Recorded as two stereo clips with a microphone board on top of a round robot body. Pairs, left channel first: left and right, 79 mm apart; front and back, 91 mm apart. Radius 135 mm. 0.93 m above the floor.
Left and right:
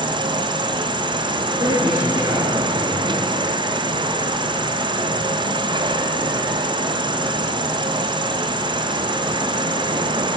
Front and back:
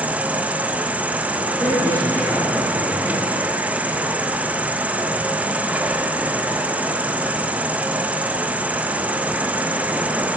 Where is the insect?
105° right, 0.9 m.